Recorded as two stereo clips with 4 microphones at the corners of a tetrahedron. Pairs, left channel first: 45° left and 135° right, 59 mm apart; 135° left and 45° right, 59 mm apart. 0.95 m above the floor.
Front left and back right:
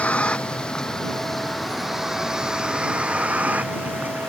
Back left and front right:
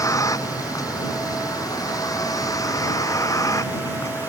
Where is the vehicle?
115° left; by 4.3 s 170° left.